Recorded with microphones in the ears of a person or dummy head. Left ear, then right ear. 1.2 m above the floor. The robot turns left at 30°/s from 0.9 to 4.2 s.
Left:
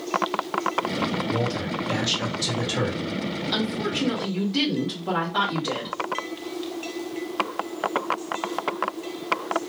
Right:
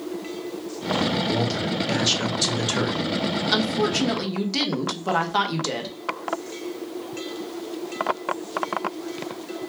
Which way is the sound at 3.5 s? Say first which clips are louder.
Right 4 dB; 75° right (ahead or behind).